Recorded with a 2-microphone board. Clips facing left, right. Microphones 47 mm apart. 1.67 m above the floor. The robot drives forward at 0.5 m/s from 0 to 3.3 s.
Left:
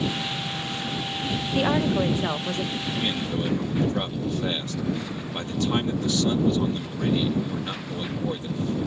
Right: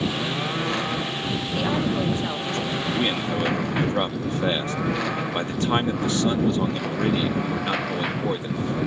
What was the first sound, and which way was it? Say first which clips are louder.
A lawn mower: right 3 dB; 80° right.